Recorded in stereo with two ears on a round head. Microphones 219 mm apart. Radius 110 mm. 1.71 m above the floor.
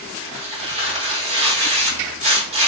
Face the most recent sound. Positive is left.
turn(degrees=-25)  # may be behind; listen again after turning